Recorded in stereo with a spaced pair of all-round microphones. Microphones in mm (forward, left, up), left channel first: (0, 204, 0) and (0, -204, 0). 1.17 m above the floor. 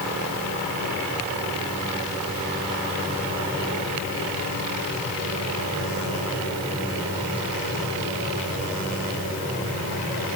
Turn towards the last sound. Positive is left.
No sound to turn to.